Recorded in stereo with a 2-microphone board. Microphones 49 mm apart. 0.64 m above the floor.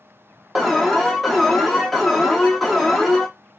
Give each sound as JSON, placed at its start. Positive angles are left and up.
{"t": 0.6, "sound": "an alarm", "side_deg": 0, "distance_m": 0.6}